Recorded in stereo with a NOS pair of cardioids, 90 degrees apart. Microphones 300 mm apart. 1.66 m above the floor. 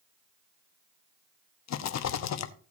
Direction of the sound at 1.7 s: 60° left.